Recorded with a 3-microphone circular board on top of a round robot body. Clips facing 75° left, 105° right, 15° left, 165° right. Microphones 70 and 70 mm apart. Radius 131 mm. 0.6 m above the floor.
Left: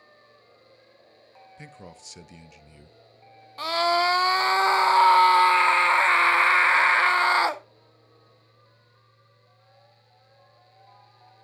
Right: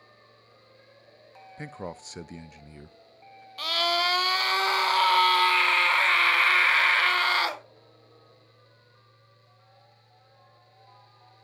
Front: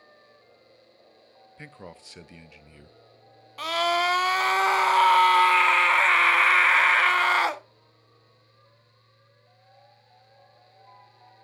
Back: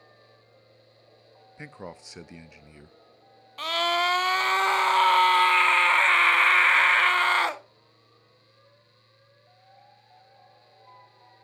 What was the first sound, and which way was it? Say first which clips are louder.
A man speaking: right 9 dB, back 3 dB; 100° right.